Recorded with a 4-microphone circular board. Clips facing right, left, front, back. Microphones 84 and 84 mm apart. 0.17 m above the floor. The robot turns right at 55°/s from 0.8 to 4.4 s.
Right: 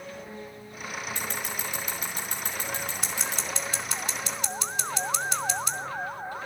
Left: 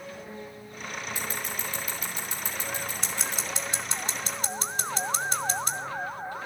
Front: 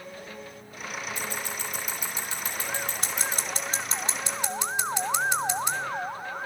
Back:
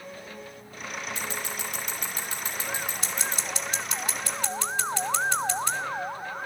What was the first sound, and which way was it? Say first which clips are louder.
Scissors: even, even; 165° left.